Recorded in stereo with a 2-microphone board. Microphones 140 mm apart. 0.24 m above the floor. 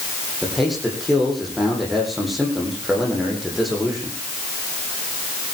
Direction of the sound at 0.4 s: Centre (ahead or behind).